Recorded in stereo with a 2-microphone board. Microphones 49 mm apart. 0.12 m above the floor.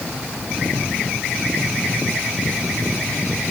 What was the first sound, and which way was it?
Only background noise.